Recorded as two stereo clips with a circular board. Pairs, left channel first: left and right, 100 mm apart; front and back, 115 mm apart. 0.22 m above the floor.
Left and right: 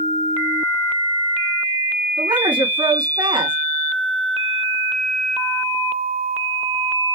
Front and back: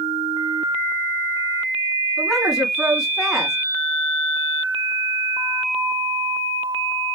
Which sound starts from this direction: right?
A woman speaking, at 2.2 s.